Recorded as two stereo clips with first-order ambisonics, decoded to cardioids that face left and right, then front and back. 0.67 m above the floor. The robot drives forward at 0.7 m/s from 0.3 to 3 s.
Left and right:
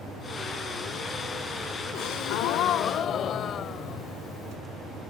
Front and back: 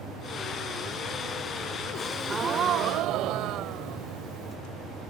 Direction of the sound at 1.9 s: 70° left.